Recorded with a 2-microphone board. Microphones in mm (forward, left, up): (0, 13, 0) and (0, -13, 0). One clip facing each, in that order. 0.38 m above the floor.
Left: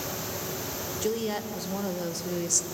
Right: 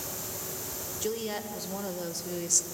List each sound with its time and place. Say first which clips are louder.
1.0 s a woman speaking: left 3 dB; 5° left (ahead or behind), 1.5 m